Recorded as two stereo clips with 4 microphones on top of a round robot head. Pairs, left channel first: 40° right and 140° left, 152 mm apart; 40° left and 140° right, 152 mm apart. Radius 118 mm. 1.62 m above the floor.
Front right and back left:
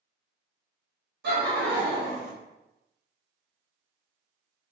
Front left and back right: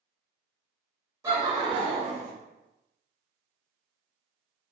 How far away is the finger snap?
I don't hear a finger snap.